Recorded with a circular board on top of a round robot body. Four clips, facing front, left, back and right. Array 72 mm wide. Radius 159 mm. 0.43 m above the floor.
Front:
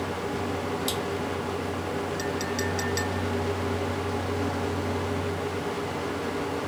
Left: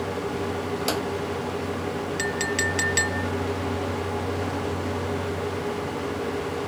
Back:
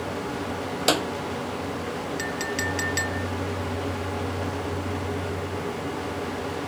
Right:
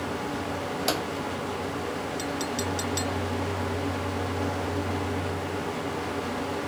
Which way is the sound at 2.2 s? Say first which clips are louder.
Left 4 dB, even; 110° left.